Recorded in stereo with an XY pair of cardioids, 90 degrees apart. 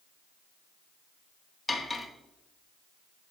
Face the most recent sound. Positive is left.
turn(degrees=30)